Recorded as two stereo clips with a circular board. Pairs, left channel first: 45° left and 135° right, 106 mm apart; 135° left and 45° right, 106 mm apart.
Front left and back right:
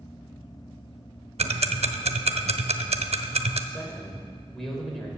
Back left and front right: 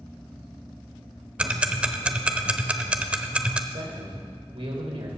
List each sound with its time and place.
1.4 s ticking: 125° right, 0.6 m
3.7 s a man speaking: 40° right, 3 m